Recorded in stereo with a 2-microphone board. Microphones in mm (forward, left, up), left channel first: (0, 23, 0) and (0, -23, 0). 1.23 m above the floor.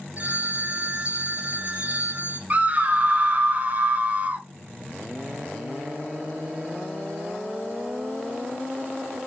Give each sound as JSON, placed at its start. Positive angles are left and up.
{"t": 0.2, "sound": "a phone ringing", "side_deg": -30, "distance_m": 0.6}
{"t": 2.5, "sound": "a scream", "side_deg": -35, "distance_m": 0.6}